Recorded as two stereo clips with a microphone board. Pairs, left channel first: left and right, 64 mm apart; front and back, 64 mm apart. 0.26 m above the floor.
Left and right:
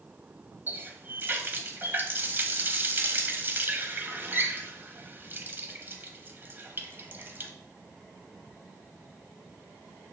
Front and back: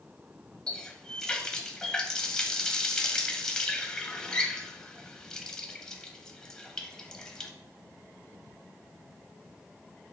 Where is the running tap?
70° right, 0.9 m.